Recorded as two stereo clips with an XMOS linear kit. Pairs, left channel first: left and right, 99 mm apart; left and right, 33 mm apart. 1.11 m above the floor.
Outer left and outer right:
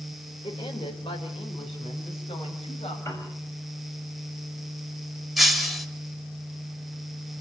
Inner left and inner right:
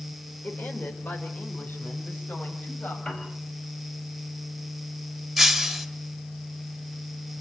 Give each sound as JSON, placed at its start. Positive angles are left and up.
{"t": 0.4, "sound": "a woman speaking", "side_deg": 75, "distance_m": 4.5}
{"t": 3.0, "sound": "a piano", "side_deg": 30, "distance_m": 6.5}
{"t": 5.4, "sound": "breaking glass", "side_deg": 0, "distance_m": 2.0}